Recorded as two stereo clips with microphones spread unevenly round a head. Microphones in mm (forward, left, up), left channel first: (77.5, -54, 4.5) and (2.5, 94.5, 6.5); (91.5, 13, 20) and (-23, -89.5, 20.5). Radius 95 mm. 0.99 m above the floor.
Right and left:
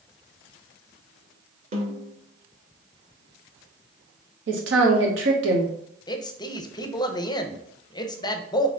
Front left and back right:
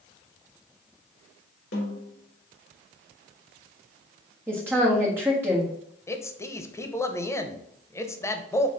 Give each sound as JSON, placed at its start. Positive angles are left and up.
{"t": 1.7, "sound": "a snare drum", "azimuth_deg": 70, "distance_m": 2.0}
{"t": 4.5, "sound": "a woman speaking", "azimuth_deg": 145, "distance_m": 1.3}
{"t": 6.1, "sound": "a man speaking", "azimuth_deg": -20, "distance_m": 0.7}